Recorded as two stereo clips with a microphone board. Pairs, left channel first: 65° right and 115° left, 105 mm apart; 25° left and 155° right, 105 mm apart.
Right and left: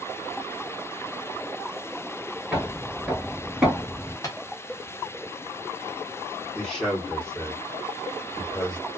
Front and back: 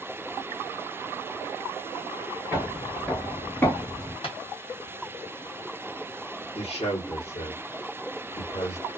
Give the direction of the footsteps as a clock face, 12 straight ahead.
6 o'clock.